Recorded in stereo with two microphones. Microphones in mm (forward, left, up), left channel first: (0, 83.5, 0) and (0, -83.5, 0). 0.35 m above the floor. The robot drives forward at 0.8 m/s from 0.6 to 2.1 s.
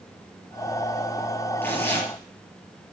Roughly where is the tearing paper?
Centre.